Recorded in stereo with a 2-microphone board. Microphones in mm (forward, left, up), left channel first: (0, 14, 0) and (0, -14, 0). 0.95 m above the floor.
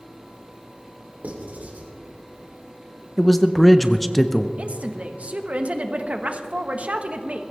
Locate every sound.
1.2 s writing: 75° right (ahead or behind), 3 m
3.2 s a man speaking: 5° left (ahead or behind), 0.6 m
4.6 s a woman speaking: 50° right (ahead or behind), 1.2 m